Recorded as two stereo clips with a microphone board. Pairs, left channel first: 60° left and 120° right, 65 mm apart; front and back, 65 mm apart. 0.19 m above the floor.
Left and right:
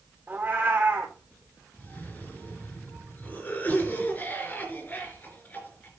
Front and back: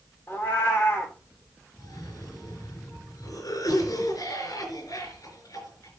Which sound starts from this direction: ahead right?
A cat meowing, at 0.3 s.